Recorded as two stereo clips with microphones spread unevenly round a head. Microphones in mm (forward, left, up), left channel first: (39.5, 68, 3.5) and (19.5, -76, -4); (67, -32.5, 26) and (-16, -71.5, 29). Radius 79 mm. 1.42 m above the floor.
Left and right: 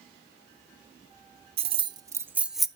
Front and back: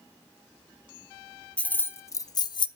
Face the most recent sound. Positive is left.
turn(degrees=-5)